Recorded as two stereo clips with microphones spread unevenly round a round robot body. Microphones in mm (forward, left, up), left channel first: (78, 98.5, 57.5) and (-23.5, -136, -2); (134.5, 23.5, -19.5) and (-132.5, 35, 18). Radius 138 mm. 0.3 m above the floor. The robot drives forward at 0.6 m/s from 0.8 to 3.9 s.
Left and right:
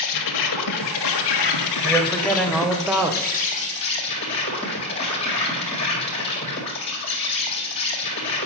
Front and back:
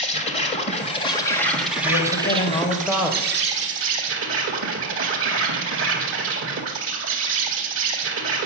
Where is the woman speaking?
25° right, 1.1 m; by 3.5 s 130° right, 0.9 m.